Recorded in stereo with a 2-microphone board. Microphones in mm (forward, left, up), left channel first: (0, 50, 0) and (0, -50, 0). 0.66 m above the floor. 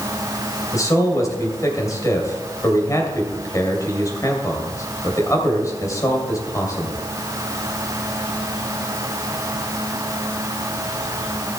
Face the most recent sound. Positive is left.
turn(degrees=35)  # may be behind; listen again after turning